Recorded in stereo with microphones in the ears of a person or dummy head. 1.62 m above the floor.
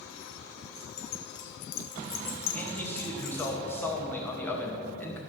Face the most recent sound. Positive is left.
turn(degrees=10)  # may be behind; listen again after turning